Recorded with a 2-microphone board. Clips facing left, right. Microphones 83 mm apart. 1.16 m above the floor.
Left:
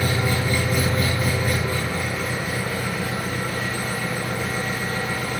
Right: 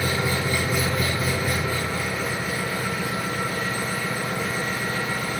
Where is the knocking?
No knocking in this recording.